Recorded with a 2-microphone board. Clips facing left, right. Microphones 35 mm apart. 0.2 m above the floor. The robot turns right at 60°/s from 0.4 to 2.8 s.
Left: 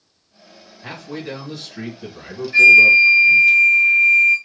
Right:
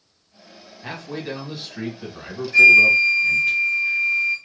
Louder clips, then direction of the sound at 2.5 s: Left 3 dB; 25° left (ahead or behind).